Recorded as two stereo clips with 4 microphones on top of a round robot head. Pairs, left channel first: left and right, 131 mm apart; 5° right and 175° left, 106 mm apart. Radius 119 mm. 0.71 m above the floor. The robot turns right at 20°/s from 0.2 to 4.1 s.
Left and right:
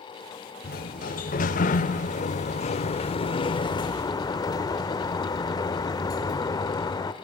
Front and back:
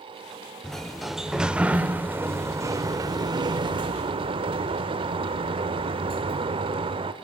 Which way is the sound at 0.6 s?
80° left.